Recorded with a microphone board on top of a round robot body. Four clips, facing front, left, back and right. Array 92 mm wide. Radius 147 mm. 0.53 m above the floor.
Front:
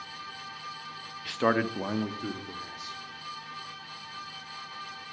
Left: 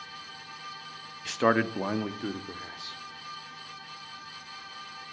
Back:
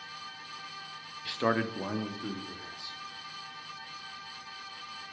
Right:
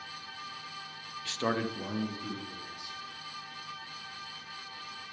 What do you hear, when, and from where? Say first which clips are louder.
1.2 s a man speaking: left 7 dB, front 3 dB; 60° left, 1.0 m; by 3.0 s 80° left, 2.5 m